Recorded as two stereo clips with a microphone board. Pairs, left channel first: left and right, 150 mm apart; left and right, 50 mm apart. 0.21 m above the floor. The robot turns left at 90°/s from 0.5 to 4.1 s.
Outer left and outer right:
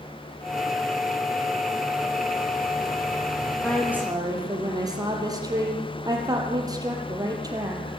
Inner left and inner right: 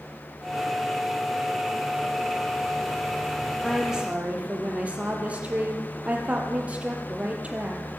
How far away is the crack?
I don't hear a crack.